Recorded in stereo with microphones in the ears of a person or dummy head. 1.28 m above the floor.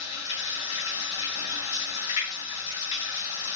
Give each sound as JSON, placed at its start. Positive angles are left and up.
{"t": 0.0, "sound": "running water", "side_deg": 25, "distance_m": 1.2}